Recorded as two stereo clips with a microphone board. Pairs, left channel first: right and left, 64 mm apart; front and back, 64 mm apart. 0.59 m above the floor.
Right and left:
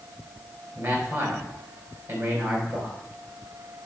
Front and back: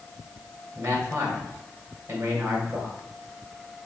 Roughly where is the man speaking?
Behind left.